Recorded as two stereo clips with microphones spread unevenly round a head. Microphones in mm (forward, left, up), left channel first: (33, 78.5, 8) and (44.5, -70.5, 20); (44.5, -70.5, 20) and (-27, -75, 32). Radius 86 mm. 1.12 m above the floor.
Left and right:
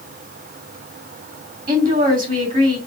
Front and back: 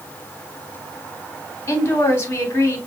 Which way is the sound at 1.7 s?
50° right.